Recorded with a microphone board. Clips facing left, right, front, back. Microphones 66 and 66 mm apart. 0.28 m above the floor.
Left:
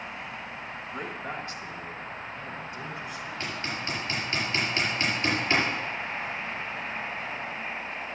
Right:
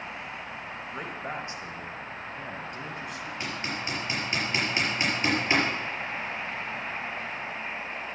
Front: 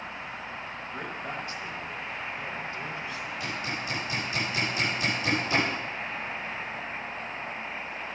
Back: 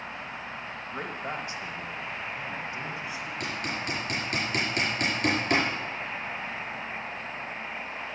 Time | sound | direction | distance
0.9 | a man speaking | straight behind | 1.2 m
3.4 | hammering | 160° right | 5 m